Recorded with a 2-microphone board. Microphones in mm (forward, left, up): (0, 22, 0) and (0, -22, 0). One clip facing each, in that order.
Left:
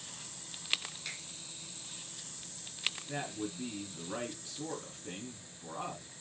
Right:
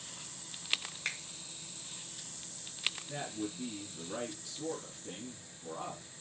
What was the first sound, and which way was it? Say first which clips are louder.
A finger snap: right 7 dB; 55° right (ahead or behind).